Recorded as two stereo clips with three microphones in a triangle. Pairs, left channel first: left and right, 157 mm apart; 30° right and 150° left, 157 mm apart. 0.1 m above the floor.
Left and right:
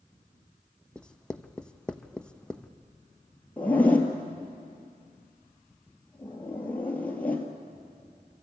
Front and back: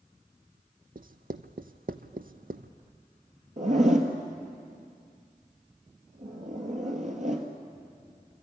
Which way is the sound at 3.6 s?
170° left.